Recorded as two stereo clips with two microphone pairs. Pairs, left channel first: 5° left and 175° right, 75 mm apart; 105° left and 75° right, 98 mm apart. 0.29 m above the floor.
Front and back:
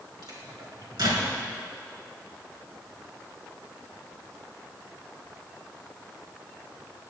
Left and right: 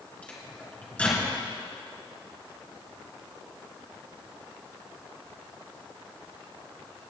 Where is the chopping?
No chopping in this recording.